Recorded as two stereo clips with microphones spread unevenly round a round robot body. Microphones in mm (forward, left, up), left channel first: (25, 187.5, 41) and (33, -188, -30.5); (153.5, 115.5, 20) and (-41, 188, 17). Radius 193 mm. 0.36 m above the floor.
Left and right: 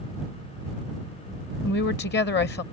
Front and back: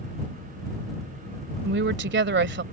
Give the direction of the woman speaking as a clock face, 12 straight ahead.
7 o'clock.